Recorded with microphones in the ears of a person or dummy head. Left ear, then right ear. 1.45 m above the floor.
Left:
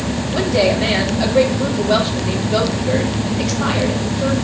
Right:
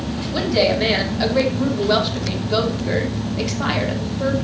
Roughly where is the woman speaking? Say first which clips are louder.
Left 2 dB; right.